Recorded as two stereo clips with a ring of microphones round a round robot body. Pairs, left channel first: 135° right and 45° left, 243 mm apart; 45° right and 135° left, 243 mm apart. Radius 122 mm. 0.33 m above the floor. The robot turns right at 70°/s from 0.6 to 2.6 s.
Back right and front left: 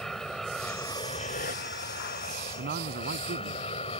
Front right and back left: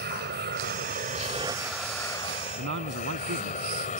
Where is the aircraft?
135° left; by 4.0 s 85° right.